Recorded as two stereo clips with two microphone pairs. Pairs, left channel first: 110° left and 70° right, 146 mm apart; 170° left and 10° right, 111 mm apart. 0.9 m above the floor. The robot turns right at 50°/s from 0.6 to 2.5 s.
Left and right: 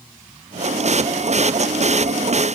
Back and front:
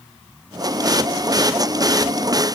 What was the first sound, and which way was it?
Only background noise.